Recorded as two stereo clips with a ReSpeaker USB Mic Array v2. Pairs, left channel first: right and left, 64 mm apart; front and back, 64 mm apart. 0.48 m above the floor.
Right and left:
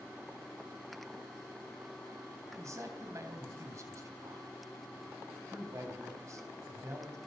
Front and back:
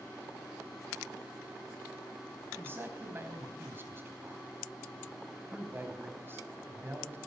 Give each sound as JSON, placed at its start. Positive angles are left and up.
{"t": 2.5, "sound": "a man speaking", "azimuth_deg": 125, "distance_m": 3.5}